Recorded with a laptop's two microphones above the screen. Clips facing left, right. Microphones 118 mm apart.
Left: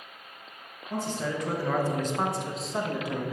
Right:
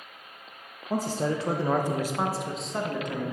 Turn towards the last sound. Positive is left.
turn(degrees=10)  # may be behind; listen again after turning